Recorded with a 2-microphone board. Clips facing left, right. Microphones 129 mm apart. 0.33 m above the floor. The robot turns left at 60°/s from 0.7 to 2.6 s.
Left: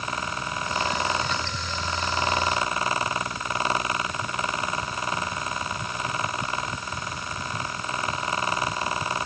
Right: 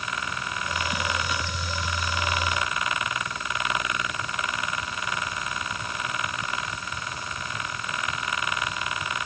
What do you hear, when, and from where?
Only background noise.